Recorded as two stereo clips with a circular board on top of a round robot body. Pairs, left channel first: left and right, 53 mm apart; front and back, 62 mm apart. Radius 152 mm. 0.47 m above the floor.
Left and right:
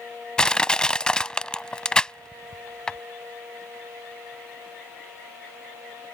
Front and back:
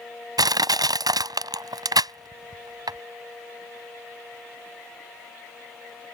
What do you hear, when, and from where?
0.4 s crushing: 170° left